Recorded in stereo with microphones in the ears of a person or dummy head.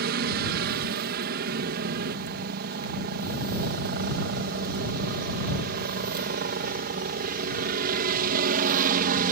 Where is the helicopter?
55° right (ahead or behind); by 9.3 s 45° right (ahead or behind).